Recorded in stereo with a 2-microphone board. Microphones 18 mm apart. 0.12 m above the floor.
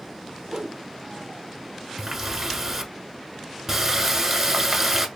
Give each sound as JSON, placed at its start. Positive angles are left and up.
{"t": 0.5, "sound": "a whoosh", "side_deg": -40, "distance_m": 0.6}
{"t": 2.0, "sound": "a running tap", "side_deg": -20, "distance_m": 0.9}